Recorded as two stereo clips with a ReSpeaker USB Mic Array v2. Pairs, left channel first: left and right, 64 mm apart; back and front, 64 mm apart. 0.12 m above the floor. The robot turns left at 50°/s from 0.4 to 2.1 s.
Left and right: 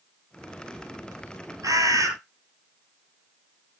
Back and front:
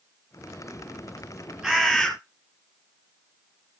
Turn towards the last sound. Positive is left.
turn(degrees=-100)